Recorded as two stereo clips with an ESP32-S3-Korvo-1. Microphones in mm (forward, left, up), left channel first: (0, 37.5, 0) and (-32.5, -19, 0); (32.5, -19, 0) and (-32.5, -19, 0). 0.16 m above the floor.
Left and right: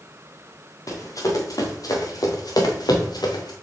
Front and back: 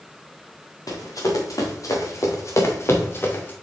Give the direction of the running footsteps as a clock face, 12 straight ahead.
11 o'clock.